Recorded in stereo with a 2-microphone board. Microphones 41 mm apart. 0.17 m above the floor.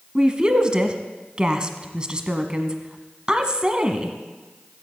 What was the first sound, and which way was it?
A woman speaking, 20° right (ahead or behind).